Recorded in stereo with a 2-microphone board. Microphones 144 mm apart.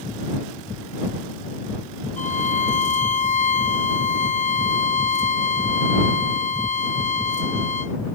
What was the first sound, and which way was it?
A violin, 55° left (ahead or behind).